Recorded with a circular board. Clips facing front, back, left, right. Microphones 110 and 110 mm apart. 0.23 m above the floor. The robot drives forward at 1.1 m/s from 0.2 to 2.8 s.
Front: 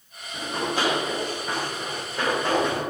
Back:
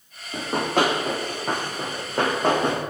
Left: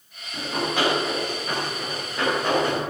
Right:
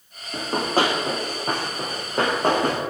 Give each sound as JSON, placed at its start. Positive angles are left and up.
{"t": 0.3, "sound": "running footsteps", "azimuth_deg": -140, "distance_m": 5.0}